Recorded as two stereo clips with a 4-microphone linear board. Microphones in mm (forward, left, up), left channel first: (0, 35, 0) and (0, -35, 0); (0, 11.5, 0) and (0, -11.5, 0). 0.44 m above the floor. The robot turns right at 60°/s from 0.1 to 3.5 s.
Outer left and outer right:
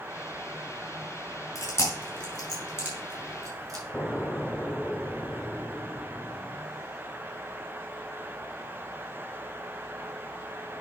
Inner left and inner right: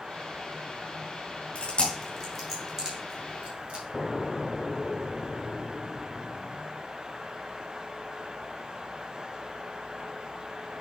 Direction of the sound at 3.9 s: 15° left (ahead or behind).